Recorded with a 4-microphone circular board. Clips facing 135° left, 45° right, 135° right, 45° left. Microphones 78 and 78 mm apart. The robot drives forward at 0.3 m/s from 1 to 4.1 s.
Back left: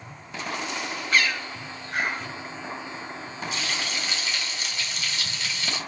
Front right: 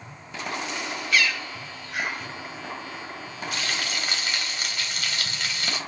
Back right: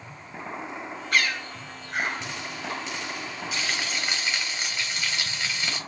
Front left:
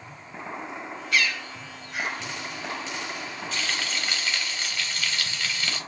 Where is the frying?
55° right, 1.2 m; by 5.8 s 65° right, 1.1 m.